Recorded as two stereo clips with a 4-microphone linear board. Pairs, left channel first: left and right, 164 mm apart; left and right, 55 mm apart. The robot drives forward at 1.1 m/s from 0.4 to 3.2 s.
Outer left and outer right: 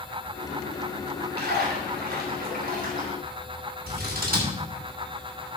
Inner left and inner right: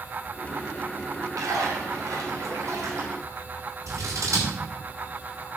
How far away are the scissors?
About 5 m.